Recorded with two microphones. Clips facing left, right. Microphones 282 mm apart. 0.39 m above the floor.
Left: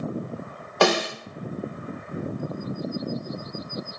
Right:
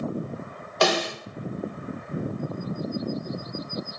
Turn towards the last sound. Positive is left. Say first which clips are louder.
# left 3 dB
turn(degrees=60)  # may be behind; listen again after turning